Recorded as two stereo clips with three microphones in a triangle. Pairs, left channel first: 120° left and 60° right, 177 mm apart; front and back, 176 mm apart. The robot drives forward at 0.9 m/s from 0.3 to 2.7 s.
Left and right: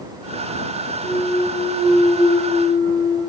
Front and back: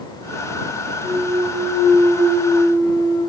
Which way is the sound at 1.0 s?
155° left.